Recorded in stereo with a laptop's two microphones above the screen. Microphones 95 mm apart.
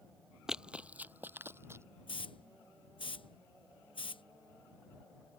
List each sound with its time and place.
0.5 s running footsteps: 5° right (ahead or behind); by 1.9 s 30° right (ahead or behind)
2.1 s a hiss: 65° left (ahead or behind)